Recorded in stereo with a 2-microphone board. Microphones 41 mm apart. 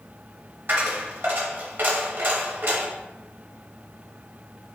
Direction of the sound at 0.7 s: 55° right (ahead or behind).